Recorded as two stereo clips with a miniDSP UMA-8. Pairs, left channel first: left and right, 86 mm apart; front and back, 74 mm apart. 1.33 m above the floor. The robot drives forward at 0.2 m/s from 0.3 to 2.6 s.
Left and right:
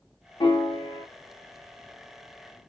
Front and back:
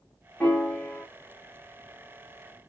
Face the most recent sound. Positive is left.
turn(degrees=90)